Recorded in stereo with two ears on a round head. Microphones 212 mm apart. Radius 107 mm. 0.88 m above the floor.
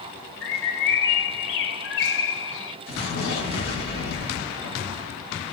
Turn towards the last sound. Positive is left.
turn(degrees=50)  # may be behind; listen again after turning